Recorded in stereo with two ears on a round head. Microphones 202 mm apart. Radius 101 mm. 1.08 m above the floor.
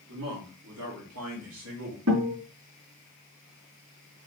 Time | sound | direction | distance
0.1 | a man speaking | 80° right | 3.5 m
2.1 | a guitar | 70° right (ahead or behind) | 4 m